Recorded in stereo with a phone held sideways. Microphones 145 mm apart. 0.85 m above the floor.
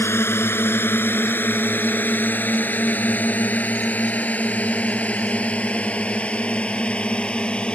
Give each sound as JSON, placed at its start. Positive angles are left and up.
{"t": 0.0, "sound": "a drone", "side_deg": 15}